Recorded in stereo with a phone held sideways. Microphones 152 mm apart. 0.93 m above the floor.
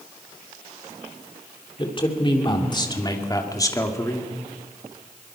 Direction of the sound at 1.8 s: 35° left (ahead or behind).